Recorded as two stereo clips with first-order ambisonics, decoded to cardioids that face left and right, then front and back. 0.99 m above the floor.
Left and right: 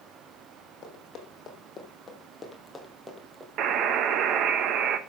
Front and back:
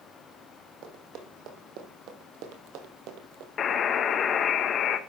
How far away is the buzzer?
About 1.1 m.